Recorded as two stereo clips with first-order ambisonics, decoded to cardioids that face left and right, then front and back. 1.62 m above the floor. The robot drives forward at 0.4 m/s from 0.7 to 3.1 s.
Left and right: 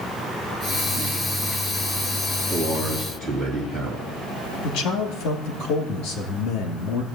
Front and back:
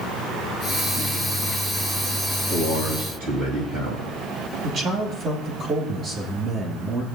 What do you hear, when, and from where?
2.5 s a man speaking: 155° right, 2.5 m
4.6 s a man speaking: 120° left, 2.5 m